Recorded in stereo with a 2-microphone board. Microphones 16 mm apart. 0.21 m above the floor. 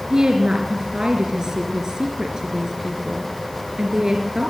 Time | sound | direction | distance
0.1 | a woman speaking | 50° right (ahead or behind) | 3 m